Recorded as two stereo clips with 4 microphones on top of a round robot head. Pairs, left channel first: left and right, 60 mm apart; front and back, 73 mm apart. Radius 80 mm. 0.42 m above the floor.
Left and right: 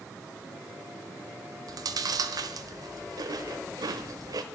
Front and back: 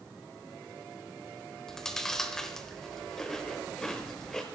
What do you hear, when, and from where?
1.7 s chewing: 85° right, 0.7 m